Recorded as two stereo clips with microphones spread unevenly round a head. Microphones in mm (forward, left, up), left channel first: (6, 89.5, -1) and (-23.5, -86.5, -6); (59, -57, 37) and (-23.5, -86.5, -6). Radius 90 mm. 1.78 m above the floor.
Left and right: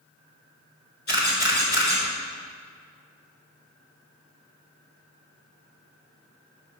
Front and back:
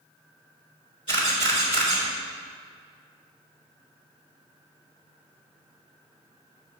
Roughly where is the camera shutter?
Ahead left.